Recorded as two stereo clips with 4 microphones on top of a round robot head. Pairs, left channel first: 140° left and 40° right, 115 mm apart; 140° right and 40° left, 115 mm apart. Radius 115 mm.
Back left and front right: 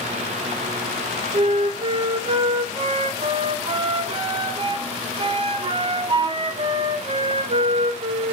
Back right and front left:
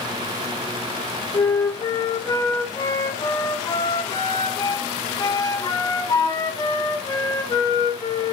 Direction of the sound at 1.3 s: 85° right.